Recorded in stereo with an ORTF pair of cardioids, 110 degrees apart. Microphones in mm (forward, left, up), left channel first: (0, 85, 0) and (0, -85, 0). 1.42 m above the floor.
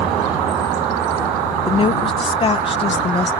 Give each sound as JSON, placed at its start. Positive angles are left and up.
{"t": 1.7, "sound": "a woman speaking", "azimuth_deg": 30}